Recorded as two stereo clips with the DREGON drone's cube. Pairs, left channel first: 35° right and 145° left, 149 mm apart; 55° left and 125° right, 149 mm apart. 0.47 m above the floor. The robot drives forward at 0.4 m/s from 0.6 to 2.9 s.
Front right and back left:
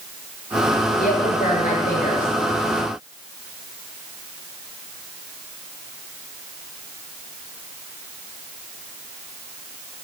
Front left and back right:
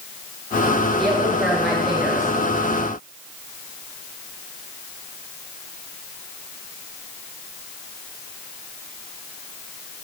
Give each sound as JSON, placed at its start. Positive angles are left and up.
{"t": 1.0, "sound": "a woman speaking", "azimuth_deg": -30, "distance_m": 8.0}